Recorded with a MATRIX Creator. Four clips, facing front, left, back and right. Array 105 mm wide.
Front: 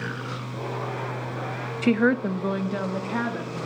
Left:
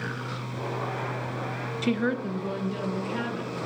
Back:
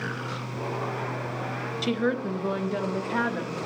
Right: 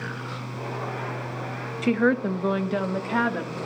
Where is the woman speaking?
20° right, 0.5 m; by 3.6 s 75° right, 1.8 m.